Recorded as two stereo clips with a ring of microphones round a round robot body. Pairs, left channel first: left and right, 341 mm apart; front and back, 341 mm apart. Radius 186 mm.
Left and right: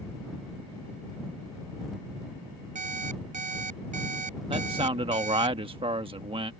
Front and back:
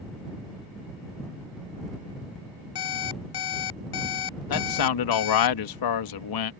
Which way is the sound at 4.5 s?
15° right.